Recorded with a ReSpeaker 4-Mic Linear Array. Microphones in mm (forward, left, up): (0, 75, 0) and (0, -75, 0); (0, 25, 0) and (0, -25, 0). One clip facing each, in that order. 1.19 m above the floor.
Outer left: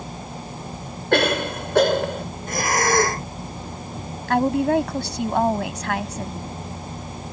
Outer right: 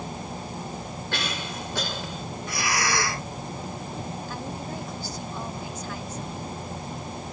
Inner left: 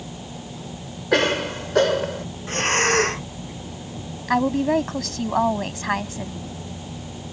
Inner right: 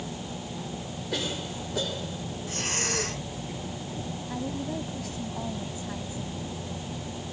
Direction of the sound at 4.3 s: 90° left.